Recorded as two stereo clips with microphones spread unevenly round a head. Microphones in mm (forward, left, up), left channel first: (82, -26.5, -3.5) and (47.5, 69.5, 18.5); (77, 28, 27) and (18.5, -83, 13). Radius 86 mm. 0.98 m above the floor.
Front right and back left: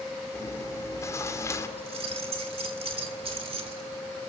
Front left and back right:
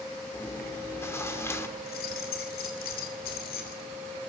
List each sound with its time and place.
0.3 s chewing: 10° right, 2.5 m
1.8 s keys jangling: 85° left, 2.5 m